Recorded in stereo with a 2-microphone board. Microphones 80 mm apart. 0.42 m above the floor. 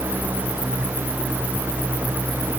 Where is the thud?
No thud in this recording.